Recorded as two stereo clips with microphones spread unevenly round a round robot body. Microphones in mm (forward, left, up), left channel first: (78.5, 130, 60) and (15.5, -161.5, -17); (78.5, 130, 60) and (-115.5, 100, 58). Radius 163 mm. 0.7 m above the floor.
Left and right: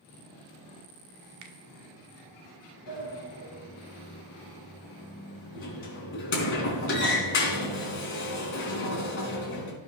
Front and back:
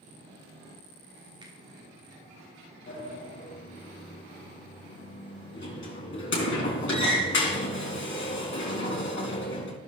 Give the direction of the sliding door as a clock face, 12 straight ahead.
11 o'clock.